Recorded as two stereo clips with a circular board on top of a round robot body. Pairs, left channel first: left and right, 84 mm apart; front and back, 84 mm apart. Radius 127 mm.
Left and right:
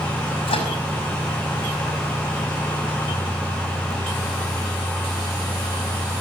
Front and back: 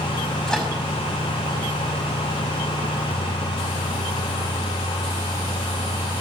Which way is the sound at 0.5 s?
80° left.